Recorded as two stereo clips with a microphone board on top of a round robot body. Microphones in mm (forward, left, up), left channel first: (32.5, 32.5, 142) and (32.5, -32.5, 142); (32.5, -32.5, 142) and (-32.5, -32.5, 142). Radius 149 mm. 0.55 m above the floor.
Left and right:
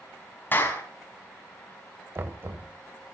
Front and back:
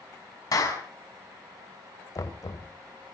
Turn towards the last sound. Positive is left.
turn(degrees=-35)